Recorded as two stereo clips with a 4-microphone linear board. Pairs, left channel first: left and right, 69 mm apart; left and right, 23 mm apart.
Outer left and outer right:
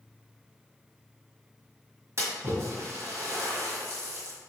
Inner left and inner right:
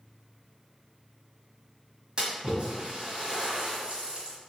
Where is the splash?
40° right (ahead or behind), 1.4 m.